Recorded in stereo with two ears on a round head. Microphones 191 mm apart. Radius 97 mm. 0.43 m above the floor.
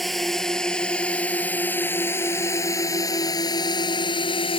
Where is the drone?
Centre (ahead or behind); by 4.6 s 25° left (ahead or behind).